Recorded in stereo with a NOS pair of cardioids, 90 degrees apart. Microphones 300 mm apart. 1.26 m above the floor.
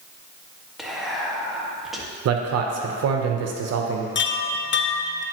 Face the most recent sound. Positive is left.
turn(degrees=40)